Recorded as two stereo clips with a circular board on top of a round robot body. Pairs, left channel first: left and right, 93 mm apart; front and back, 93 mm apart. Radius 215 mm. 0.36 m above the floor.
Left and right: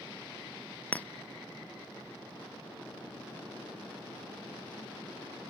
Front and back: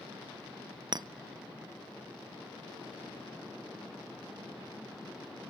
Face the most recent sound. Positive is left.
turn(degrees=160)